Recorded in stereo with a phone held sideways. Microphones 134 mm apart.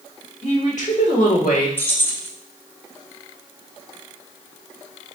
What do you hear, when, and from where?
0.4 s a woman speaking: 45° left (ahead or behind), 1.3 m; by 1.7 s 85° left, 1.6 m
1.8 s keys jangling: 15° left (ahead or behind), 0.7 m